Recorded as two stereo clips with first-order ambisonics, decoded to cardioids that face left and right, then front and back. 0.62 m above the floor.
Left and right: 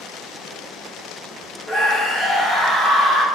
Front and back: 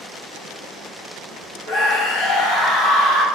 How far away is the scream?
About 1.6 m.